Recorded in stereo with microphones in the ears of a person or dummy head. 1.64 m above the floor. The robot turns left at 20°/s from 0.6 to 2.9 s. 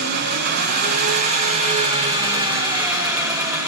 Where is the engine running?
115° right, 0.8 m; by 3.7 s 160° right, 0.8 m.